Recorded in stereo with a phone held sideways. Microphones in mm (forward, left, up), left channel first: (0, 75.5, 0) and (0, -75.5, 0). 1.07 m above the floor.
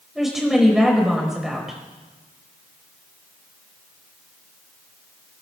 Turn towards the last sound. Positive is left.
turn(degrees=0)  # may be behind; listen again after turning